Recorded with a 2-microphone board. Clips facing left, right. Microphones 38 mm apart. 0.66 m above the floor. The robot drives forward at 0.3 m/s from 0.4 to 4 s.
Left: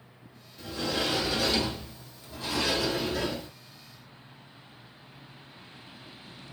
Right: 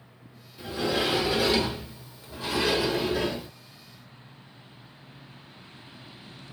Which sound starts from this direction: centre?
A sliding door, at 0.6 s.